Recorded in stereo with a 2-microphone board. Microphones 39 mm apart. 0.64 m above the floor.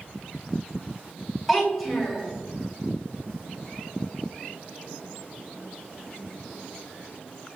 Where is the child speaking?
Centre (ahead or behind), 1.5 m.